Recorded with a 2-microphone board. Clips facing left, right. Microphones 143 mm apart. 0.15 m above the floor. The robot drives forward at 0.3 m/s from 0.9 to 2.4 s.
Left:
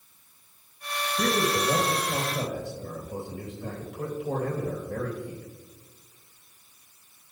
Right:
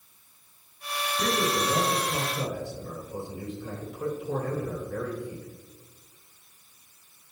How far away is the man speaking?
About 4 m.